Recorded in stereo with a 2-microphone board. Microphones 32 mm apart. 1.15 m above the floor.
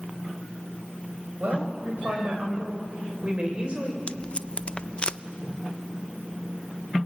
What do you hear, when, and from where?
1.4 s a woman speaking: 65° right (ahead or behind), 7 m; by 4.0 s 35° right (ahead or behind), 6 m
4.1 s tape being pulled: 40° left (ahead or behind), 0.5 m